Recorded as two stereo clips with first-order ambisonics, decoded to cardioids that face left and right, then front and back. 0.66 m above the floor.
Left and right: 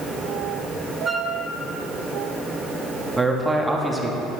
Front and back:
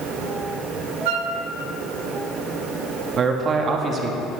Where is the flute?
175° right, 0.8 m.